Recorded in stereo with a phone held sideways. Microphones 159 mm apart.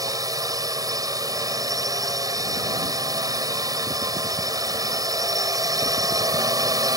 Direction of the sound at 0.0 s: 20° right (ahead or behind).